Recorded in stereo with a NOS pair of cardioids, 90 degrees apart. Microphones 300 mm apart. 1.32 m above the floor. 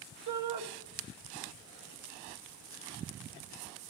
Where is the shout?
70° right, 2.5 m.